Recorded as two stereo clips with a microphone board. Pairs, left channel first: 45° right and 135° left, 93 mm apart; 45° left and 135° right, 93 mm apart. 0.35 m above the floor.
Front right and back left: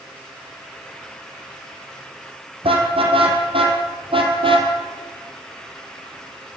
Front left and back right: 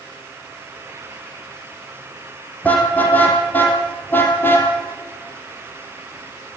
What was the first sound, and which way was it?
A car horn, 115° left.